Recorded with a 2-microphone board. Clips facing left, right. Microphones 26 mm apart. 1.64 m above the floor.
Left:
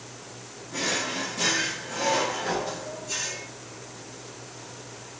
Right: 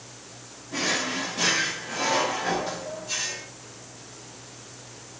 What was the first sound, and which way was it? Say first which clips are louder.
A drawer: right 2 dB; 25° right (ahead or behind).